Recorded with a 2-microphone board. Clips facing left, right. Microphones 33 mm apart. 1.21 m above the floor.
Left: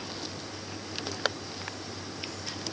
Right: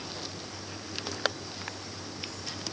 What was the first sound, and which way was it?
Only background noise.